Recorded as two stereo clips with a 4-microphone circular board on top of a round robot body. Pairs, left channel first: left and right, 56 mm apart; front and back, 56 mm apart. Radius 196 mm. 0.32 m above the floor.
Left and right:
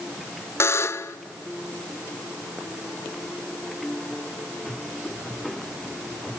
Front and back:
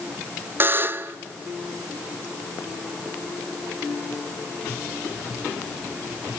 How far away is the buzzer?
About 0.6 m.